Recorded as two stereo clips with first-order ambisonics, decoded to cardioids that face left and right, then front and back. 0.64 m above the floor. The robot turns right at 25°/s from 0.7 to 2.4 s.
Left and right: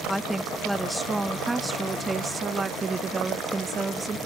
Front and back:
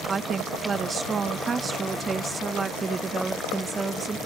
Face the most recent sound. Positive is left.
turn(degrees=-130)